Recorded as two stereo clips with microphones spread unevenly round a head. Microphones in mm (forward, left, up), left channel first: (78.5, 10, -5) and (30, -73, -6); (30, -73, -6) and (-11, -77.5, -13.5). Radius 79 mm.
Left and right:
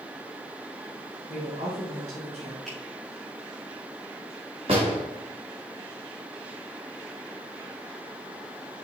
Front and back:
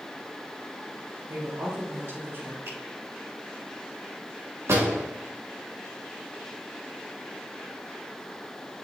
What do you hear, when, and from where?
1.3 s a woman speaking: 160° right, 3.5 m
2.6 s a finger snap: 150° left, 3.5 m
4.7 s a door slam: straight behind, 1.8 m